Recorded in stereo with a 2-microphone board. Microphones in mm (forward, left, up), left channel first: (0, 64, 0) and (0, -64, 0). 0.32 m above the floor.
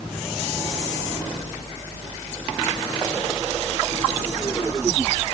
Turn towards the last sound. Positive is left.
No sound to turn to.